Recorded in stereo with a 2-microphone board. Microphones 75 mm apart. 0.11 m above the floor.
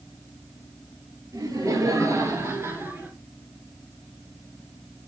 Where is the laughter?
50° right (ahead or behind), 2.5 m; by 3.1 s 20° right (ahead or behind), 2.0 m.